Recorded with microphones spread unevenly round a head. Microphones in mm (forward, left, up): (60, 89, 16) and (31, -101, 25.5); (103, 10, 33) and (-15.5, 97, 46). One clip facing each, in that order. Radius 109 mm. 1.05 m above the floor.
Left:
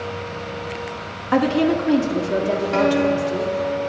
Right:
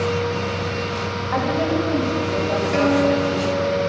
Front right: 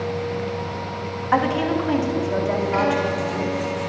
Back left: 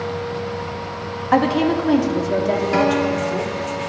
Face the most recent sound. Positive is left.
turn(degrees=170)